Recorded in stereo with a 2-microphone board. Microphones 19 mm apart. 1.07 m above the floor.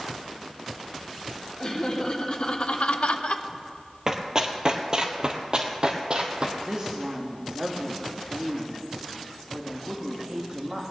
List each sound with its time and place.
1.6 s laughter: 35° left (ahead or behind), 2.5 m; by 3.5 s 45° left (ahead or behind), 0.9 m
4.1 s running footsteps: 30° right (ahead or behind), 1.2 m; by 6.5 s 45° right (ahead or behind), 1.8 m
6.6 s a woman speaking: 35° right (ahead or behind), 1.6 m